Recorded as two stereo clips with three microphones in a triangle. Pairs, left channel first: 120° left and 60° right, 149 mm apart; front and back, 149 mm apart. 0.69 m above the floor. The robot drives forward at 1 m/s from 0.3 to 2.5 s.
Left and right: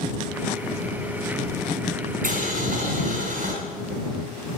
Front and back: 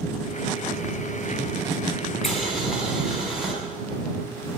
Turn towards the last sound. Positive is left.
turn(degrees=-90)